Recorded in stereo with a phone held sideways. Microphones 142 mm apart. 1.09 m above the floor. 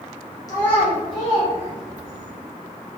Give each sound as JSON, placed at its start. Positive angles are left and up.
{"t": 0.5, "sound": "a child speaking", "side_deg": 25, "distance_m": 0.6}